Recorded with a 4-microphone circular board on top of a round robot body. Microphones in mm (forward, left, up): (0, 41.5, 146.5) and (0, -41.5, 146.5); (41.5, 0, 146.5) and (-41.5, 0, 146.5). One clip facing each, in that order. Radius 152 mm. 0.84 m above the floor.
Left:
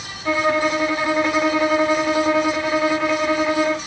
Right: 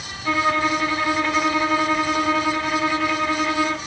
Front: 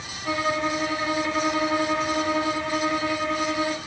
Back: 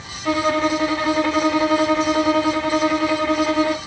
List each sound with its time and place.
0.2 s a violin: 165° left, 3 m